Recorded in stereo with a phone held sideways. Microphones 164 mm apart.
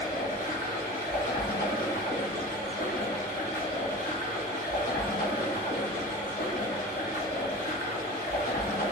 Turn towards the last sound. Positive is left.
turn(degrees=70)  # may be behind; listen again after turning